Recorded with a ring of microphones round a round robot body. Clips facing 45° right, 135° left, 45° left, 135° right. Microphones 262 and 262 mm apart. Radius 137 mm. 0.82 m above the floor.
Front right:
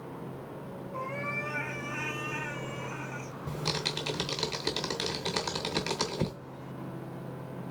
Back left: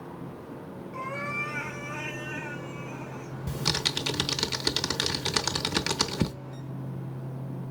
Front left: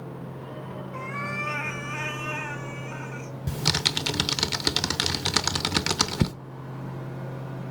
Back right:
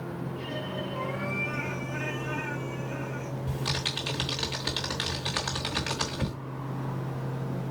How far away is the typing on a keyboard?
About 0.8 m.